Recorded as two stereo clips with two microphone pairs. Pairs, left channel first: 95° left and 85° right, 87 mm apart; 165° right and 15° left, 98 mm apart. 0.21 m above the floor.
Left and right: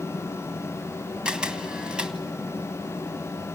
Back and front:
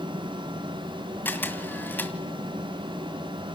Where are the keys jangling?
I don't hear keys jangling.